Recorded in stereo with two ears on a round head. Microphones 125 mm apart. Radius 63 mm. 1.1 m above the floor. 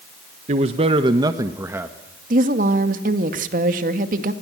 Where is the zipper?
I don't hear a zipper.